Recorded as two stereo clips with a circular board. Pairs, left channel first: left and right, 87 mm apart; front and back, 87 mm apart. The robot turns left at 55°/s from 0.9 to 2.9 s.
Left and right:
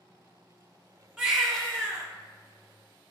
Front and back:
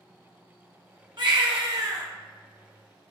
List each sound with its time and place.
1.2 s a baby crying: 175° right, 1.2 m; by 2.1 s 140° left, 1.2 m